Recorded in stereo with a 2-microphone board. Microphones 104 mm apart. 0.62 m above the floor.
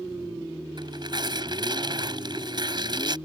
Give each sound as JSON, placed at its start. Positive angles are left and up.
{"t": 0.8, "sound": "tearing paper", "side_deg": -45}